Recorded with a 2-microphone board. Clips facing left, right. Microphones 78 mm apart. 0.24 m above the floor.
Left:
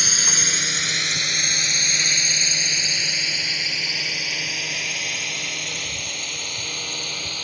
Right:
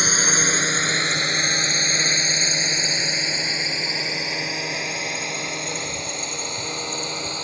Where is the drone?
35° right (ahead or behind); by 7.4 s 25° right (ahead or behind).